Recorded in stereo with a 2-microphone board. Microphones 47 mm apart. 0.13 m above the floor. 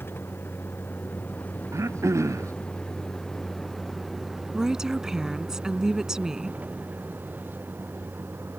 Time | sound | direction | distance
0.0 | a vehicle | 45° left (ahead or behind) | ?
1.7 | throat clearing | 80° right | ?
4.5 | a woman speaking | 10° right (ahead or behind) | ?